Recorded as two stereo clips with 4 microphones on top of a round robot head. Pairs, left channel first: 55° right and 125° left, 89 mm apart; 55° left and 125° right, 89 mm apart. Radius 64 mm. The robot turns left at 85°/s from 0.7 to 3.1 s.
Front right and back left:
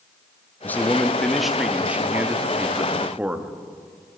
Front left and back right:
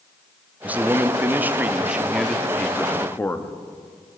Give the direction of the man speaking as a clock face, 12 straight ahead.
3 o'clock.